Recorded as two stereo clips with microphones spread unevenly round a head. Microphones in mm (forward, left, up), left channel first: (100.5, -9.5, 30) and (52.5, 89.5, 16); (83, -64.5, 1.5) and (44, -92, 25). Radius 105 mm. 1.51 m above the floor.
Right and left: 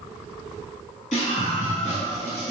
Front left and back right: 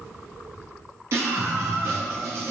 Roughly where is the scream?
Right.